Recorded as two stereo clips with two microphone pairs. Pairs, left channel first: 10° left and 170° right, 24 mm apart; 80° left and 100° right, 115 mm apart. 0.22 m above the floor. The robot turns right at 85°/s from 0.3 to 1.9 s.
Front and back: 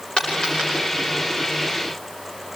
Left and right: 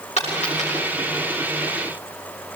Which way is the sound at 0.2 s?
55° left.